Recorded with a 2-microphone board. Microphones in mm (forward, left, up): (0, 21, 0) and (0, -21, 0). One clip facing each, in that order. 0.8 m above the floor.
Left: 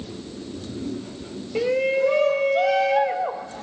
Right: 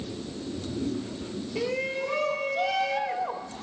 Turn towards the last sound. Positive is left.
turn(degrees=80)